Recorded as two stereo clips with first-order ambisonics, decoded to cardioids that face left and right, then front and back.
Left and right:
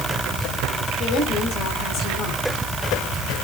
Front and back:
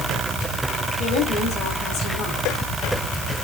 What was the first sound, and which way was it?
A woman speaking, 25° left.